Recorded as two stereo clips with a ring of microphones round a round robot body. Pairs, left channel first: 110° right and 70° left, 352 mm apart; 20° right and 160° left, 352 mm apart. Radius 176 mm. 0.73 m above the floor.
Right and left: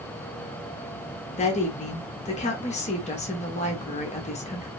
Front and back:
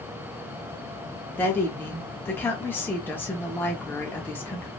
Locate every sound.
1.4 s a woman speaking: 95° right, 0.7 m